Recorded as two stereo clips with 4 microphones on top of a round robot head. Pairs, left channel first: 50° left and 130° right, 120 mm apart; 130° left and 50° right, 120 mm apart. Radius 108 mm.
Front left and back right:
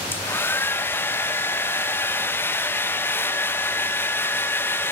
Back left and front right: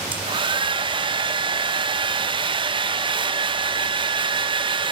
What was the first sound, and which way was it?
A hair dryer, 20° right.